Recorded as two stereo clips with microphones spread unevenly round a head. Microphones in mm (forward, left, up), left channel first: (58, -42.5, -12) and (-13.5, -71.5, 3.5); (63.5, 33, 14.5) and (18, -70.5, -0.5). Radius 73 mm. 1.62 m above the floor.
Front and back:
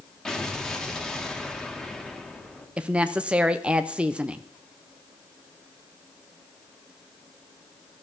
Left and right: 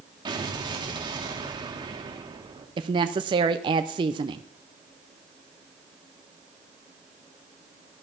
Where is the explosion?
65° right, 1.8 m.